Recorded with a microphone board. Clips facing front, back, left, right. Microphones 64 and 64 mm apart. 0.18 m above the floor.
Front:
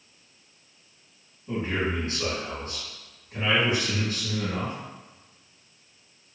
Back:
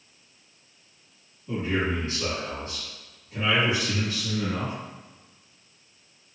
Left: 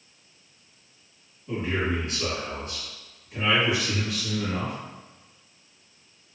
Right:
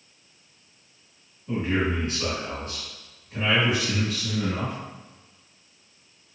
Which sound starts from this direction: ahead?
A man speaking, at 1.5 s.